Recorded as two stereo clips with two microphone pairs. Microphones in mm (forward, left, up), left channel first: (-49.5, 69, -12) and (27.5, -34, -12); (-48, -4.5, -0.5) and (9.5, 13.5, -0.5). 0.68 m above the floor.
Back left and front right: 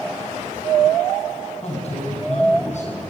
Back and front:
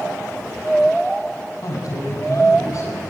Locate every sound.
1.6 s a man speaking: 165° left, 7 m; by 3.0 s 155° left, 8.5 m